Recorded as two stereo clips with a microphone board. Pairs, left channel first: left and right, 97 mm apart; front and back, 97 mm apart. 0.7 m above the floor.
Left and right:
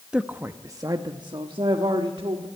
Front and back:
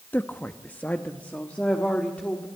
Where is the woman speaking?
25° right, 0.6 m; by 2.5 s 75° right, 1.6 m.